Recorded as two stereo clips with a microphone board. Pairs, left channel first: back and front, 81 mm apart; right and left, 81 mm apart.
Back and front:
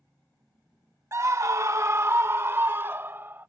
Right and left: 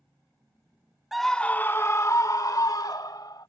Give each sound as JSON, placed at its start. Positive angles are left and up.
{"t": 1.1, "sound": "a scream", "azimuth_deg": 5}